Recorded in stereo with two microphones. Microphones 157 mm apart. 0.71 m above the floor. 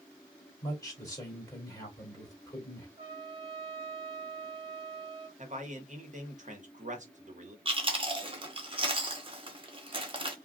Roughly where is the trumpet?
Right.